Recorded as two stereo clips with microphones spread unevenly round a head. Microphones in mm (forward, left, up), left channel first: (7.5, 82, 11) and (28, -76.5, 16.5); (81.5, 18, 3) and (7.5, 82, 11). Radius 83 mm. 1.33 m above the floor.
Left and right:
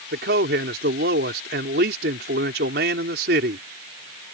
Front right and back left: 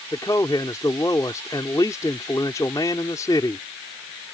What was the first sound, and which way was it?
A man speaking, 110° right.